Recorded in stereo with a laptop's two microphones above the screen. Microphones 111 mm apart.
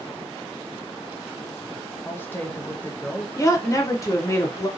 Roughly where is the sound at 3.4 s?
Left.